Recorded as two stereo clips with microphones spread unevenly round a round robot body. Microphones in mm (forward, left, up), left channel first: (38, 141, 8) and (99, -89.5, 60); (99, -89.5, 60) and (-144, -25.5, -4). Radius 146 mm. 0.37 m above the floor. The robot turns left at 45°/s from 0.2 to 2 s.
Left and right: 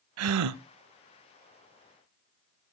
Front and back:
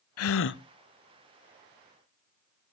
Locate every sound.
0.2 s a gasp: 50° right, 0.6 m; by 0.6 s 70° right, 0.6 m